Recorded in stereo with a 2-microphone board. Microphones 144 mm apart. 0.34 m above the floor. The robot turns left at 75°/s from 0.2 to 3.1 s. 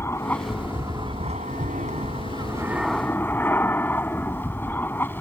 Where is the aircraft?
20° left; by 5.2 s 165° left.